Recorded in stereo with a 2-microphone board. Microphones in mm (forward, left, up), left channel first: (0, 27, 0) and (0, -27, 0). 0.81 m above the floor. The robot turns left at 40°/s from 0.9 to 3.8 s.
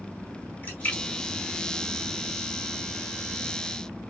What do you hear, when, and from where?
0.6 s a splash: 35° left (ahead or behind), 1.5 m; by 2.4 s 70° left (ahead or behind), 1.5 m